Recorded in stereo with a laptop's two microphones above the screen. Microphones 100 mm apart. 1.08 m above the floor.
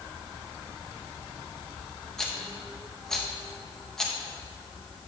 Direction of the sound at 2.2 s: 5° left (ahead or behind).